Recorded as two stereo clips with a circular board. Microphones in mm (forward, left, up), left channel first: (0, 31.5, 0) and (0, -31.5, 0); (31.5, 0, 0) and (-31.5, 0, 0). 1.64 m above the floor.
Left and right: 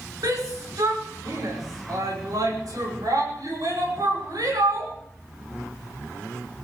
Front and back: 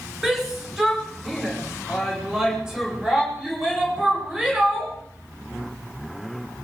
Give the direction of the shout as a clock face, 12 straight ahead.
3 o'clock.